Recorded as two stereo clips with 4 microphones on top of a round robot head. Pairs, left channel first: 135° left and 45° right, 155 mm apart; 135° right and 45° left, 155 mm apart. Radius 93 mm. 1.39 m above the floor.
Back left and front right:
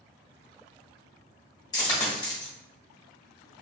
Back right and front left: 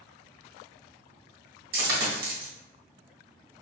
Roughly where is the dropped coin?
Left.